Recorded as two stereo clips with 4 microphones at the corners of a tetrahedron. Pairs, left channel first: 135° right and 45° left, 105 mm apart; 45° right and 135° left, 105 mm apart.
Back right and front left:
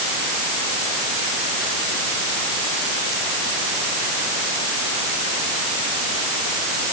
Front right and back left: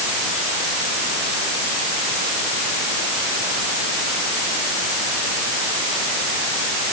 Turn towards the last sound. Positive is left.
No sound to turn to.